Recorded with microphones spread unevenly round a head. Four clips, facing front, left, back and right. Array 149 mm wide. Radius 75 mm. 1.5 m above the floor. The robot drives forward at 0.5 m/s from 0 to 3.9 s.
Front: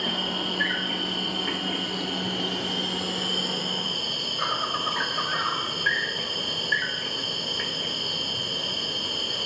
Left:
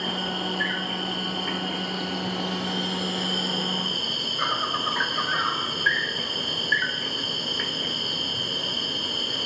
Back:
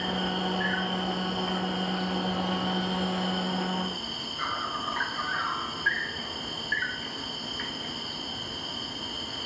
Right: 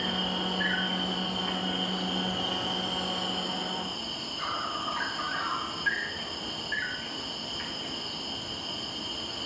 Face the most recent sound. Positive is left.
turn(degrees=65)